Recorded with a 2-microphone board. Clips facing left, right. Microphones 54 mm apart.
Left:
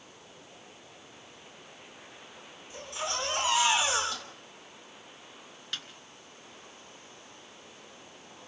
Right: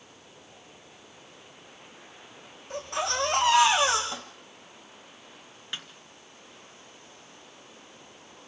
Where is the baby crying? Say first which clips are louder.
Right 6 dB; 55° right (ahead or behind), 6.5 m.